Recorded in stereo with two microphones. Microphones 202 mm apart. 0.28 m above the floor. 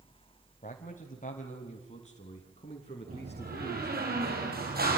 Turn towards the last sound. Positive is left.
turn(degrees=-50)  # may be behind; listen again after turning